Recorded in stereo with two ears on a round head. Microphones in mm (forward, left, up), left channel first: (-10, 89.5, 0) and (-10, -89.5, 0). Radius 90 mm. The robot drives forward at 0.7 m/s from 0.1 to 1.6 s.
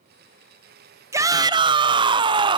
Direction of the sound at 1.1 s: 15° right (ahead or behind).